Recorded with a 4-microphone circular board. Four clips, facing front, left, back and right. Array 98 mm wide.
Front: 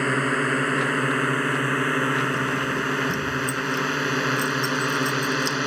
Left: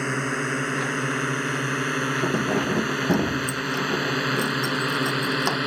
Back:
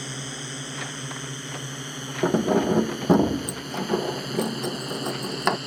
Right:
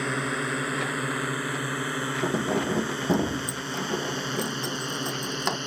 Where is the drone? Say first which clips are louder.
Left 2 dB, front 14 dB; 5° left; by 5.7 s 30° left.